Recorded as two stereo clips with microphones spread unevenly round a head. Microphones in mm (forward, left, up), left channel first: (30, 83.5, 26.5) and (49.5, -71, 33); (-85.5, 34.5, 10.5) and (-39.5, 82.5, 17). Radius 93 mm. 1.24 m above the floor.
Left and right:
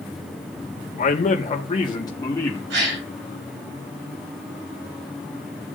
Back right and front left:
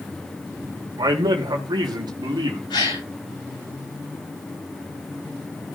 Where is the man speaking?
55° left, 1.9 m; by 2.6 s 20° left, 2.0 m.